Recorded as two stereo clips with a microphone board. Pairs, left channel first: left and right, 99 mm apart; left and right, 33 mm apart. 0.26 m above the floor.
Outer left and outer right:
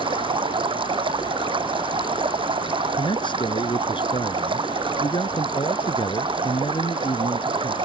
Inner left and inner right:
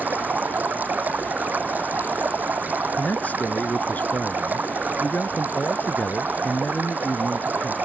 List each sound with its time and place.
0.0 s running water: 55° right (ahead or behind)
3.0 s a man speaking: 55° left (ahead or behind)